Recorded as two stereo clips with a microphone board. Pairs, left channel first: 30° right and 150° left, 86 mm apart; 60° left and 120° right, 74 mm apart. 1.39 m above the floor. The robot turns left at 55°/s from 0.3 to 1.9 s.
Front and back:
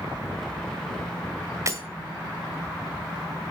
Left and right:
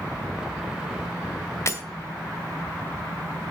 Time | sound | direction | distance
1.7 | breaking glass | 105° left | 2.0 m